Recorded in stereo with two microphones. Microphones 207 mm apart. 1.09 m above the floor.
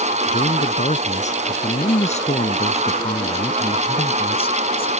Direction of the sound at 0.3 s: 35° left (ahead or behind).